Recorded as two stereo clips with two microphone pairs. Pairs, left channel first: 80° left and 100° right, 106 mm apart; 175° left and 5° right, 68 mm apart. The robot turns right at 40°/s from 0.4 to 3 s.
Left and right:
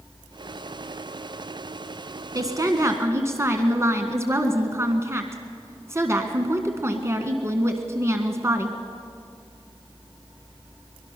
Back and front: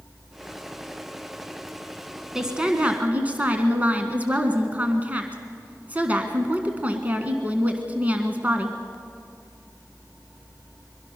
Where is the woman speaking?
85° right, 1.6 m; by 8.8 s 60° right, 1.6 m.